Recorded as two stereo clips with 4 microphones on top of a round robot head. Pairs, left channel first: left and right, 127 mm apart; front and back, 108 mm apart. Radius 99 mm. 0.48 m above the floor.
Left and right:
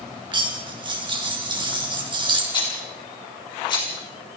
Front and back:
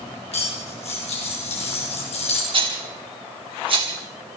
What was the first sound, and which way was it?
Cutlery clinking, 40° right.